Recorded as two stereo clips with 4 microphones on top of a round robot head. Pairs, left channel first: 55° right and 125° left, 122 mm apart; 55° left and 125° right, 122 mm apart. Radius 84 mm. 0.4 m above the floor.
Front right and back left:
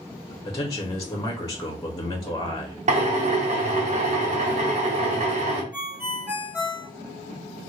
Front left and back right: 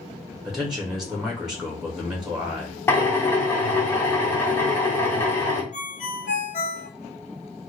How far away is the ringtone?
About 1.5 m.